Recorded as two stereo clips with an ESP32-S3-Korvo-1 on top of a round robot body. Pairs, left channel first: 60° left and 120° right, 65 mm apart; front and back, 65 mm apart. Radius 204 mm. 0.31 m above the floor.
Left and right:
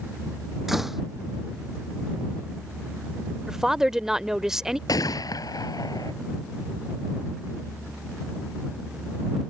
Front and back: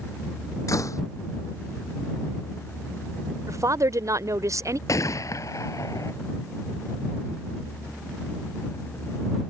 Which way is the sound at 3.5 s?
160° left.